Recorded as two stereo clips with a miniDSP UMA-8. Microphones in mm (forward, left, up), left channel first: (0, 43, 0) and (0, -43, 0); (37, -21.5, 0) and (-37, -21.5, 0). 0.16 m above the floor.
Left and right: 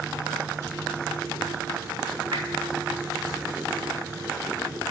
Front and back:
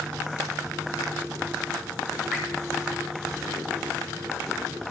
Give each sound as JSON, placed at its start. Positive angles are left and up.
{"t": 2.3, "sound": "dripping", "azimuth_deg": -100, "distance_m": 3.5}